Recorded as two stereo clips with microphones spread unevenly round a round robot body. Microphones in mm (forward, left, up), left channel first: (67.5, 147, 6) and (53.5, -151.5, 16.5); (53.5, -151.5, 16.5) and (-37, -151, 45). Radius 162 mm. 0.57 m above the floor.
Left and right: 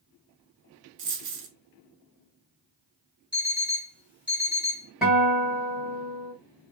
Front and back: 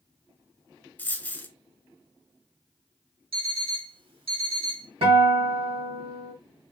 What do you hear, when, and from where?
1.0 s a dropped coin: 85° right, 1.0 m
3.3 s an alarm clock: straight behind, 1.6 m
5.0 s a guitar: straight behind, 2 m